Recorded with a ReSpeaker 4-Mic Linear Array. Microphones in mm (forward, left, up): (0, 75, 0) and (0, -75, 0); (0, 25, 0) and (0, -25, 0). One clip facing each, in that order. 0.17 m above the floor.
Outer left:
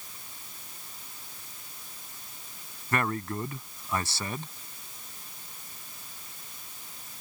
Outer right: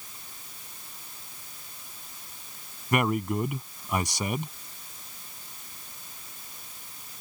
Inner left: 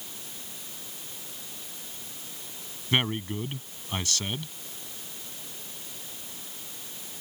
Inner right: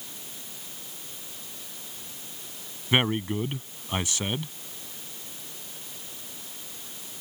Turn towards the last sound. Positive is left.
turn(degrees=-15)  # may be behind; listen again after turning